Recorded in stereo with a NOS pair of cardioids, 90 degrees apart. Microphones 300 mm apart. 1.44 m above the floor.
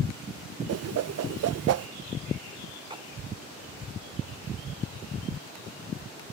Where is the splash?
15° right.